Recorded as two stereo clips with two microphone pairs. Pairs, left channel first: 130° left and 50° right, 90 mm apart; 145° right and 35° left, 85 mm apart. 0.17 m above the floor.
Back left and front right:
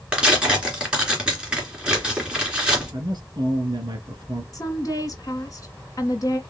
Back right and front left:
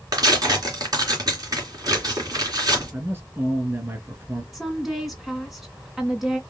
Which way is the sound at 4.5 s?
120° left.